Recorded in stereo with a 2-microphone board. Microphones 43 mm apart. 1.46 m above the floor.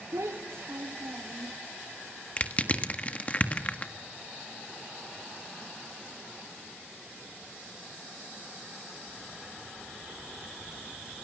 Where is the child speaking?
80° right, 1.7 m.